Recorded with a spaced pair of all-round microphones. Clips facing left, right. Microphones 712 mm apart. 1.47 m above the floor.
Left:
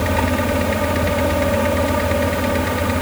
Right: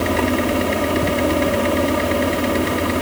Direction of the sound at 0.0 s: 25° left (ahead or behind).